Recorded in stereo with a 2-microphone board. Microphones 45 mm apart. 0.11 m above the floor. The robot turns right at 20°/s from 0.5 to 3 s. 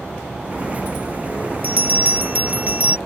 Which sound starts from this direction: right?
A bell, at 1.6 s.